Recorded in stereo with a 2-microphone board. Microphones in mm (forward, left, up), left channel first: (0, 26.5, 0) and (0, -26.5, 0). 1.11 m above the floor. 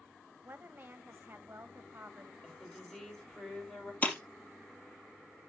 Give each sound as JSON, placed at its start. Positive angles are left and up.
{"t": 0.4, "sound": "a woman speaking", "side_deg": -40, "distance_m": 1.1}
{"t": 2.4, "sound": "a woman speaking", "side_deg": 10, "distance_m": 4.5}
{"t": 4.0, "sound": "breaking glass", "side_deg": 30, "distance_m": 2.0}